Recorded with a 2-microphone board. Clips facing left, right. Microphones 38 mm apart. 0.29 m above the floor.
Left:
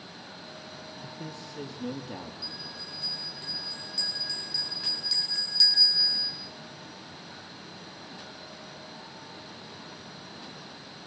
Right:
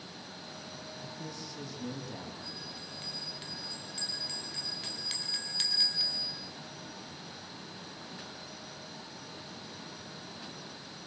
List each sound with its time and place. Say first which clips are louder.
1.0 s a man speaking: left 3 dB; 30° left (ahead or behind), 4.5 m; by 2.3 s 35° left (ahead or behind), 6 m
2.4 s a bell: left 3 dB; 55° right (ahead or behind), 4.5 m